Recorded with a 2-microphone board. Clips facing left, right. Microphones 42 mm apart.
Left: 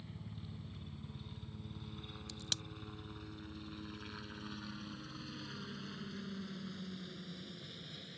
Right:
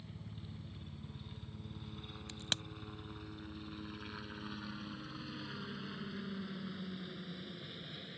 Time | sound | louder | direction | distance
0.0 | a helicopter | left 1 dB | 5° left (ahead or behind) | ?
2.3 | a crack | right 4 dB | 40° right (ahead or behind) | ?